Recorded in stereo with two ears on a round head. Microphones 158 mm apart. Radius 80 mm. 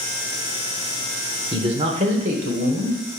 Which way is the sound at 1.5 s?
25° right (ahead or behind).